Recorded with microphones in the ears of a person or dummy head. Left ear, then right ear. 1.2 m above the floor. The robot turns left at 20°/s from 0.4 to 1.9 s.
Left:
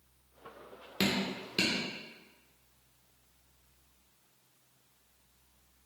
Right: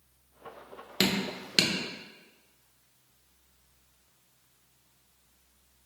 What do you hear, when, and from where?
1.0 s dripping: 15° right (ahead or behind), 0.9 m; by 1.7 s 30° right (ahead or behind), 0.9 m